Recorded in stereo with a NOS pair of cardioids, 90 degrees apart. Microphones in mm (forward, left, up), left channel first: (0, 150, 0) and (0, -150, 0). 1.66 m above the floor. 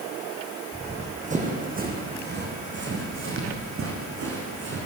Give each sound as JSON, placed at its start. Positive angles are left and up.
{"t": 0.7, "sound": "running footsteps", "azimuth_deg": -20, "distance_m": 6.0}